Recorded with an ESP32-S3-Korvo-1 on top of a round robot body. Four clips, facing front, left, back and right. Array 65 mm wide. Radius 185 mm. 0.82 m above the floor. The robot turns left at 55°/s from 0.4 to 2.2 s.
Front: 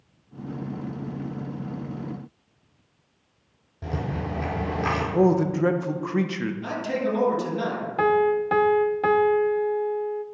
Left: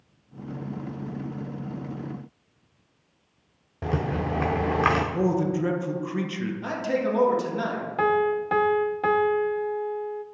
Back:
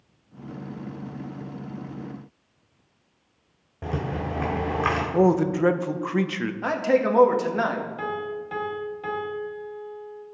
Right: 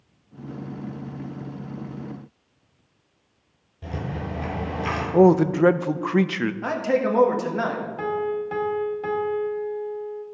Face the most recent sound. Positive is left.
turn(degrees=35)